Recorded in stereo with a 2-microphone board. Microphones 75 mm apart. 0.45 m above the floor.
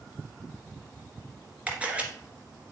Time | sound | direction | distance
1.7 | a camera shutter | 15° right (ahead or behind) | 1.6 m